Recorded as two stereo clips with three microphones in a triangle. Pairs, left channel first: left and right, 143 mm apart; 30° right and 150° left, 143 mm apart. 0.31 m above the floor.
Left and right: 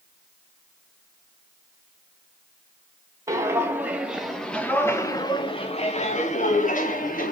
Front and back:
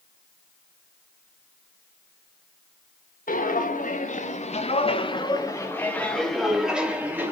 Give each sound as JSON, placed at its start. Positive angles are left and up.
{"t": 3.3, "sound": "footsteps", "azimuth_deg": -20, "distance_m": 2.0}